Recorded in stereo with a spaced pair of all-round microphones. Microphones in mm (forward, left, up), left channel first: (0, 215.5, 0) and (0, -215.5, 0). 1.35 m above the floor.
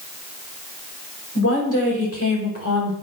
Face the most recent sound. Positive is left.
turn(degrees=30)  # may be behind; listen again after turning